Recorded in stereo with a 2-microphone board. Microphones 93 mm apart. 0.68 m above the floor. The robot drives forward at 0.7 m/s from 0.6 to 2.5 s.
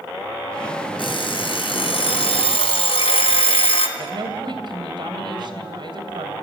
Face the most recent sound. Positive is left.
turn(degrees=-60)  # may be behind; listen again after turning